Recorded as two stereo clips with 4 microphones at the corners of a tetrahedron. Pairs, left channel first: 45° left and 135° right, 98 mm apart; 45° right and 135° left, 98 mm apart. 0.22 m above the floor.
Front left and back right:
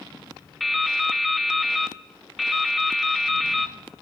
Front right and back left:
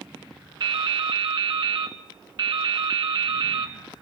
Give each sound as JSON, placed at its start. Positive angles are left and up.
{"t": 0.6, "sound": "dripping", "azimuth_deg": 135, "distance_m": 0.7}